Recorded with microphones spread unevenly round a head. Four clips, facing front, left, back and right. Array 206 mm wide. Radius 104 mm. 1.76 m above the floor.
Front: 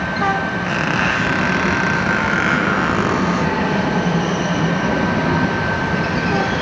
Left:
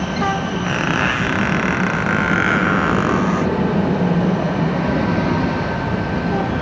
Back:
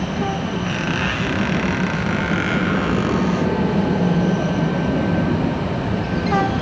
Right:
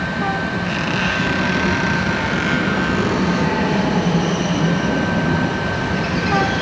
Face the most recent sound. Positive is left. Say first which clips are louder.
# left 2 dB, front 4 dB
turn(degrees=60)